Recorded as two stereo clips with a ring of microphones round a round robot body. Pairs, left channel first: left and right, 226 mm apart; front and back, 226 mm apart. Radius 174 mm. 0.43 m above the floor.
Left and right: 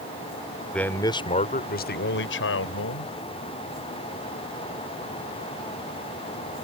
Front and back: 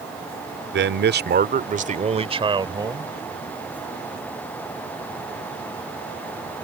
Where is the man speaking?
175° left; by 3.1 s 105° left.